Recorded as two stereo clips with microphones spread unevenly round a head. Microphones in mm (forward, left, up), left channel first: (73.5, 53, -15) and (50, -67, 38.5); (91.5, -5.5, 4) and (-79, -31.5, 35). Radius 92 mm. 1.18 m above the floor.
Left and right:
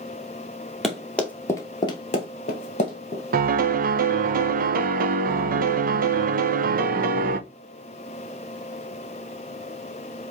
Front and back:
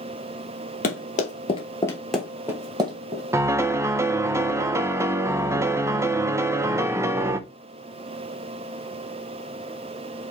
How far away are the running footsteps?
About 1.7 m.